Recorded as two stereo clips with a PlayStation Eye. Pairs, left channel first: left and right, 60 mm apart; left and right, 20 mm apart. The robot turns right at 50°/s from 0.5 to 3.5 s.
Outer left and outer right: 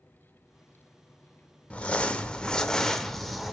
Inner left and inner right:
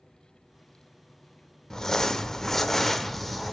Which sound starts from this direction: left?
Crumpling, at 1.7 s.